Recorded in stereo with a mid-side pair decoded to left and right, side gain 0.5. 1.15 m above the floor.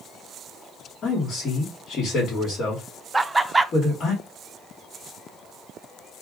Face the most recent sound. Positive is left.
turn(degrees=-15)